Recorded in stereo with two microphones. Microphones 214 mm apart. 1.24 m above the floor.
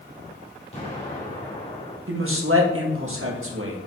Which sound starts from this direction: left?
An explosion, at 0.7 s.